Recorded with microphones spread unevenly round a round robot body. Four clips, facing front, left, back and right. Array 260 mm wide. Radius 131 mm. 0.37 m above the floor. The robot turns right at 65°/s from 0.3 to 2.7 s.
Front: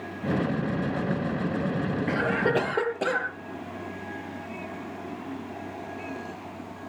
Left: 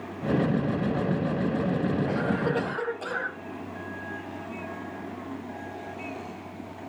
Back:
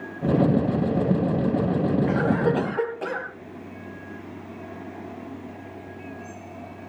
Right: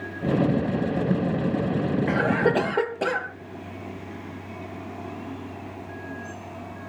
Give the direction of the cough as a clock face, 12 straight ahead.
3 o'clock.